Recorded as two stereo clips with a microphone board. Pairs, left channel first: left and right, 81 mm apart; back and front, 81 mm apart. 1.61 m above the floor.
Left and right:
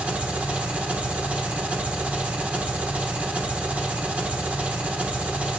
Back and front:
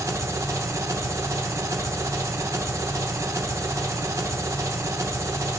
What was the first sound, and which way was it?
An engine running, 25° right.